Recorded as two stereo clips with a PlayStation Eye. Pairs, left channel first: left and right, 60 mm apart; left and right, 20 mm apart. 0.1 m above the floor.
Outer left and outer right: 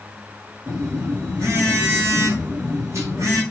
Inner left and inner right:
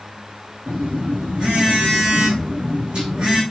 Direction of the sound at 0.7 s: 50° right (ahead or behind).